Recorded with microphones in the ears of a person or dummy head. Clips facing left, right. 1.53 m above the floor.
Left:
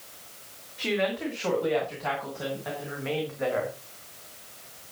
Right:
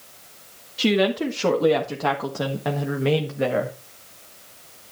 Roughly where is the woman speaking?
Right.